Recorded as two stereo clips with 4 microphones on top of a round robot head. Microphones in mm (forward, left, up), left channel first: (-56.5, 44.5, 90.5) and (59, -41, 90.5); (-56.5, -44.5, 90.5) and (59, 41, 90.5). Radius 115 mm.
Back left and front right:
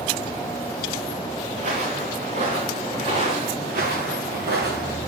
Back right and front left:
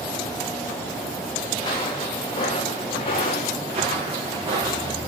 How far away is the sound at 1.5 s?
About 4 m.